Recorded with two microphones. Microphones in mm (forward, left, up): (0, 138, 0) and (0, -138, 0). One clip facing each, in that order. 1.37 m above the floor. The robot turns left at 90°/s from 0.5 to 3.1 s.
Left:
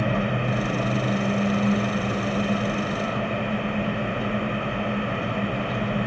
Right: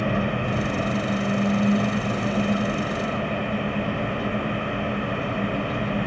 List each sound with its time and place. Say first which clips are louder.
0.0 s an engine running: even; straight behind, 3 m; by 6.1 s 50° right, 3 m